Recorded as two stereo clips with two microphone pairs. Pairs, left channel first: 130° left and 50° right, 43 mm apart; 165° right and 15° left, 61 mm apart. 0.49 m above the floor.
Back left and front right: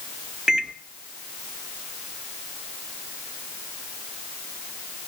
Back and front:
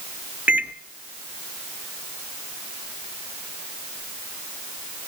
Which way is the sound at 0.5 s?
10° right.